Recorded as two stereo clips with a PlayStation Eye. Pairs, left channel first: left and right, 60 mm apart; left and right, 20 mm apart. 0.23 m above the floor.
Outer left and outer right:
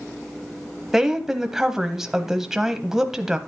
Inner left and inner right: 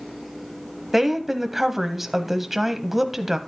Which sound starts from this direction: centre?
A woman speaking, at 0.9 s.